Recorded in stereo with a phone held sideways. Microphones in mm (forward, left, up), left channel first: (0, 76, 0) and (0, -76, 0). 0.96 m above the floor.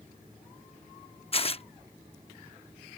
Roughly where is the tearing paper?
Left.